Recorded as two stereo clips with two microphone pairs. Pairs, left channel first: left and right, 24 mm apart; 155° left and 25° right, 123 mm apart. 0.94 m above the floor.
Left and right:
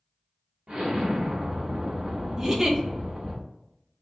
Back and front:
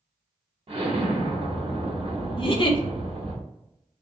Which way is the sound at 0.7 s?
70° right.